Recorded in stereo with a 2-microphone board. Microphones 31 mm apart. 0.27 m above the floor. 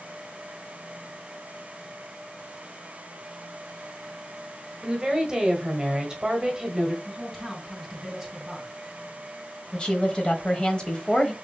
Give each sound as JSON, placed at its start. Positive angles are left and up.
{"t": 4.8, "sound": "a woman speaking", "side_deg": -20, "distance_m": 1.3}
{"t": 7.0, "sound": "a man speaking", "side_deg": -5, "distance_m": 3.0}
{"t": 9.7, "sound": "a woman speaking", "side_deg": 30, "distance_m": 1.1}